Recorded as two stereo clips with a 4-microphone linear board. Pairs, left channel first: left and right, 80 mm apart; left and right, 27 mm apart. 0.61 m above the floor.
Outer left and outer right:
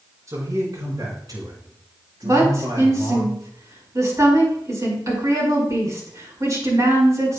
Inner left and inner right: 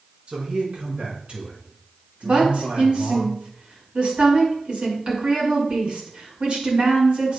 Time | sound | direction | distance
0.3 | a man speaking | 45° right (ahead or behind) | 5 m
2.2 | a woman speaking | 45° right (ahead or behind) | 5 m